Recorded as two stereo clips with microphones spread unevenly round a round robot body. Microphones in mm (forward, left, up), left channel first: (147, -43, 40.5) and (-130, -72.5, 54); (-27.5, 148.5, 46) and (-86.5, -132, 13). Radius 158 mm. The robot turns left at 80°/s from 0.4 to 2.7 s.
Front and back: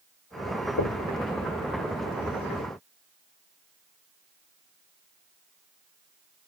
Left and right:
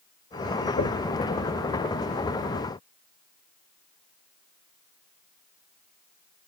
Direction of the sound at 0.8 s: 20° left.